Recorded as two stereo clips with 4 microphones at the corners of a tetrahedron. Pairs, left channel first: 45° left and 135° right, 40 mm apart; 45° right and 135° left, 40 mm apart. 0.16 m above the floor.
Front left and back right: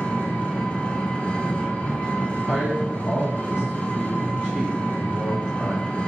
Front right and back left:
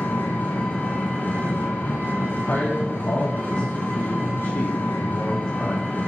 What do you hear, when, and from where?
0.0 s an engine running: 15° right, 3.5 m
2.5 s a man speaking: 70° right, 3.5 m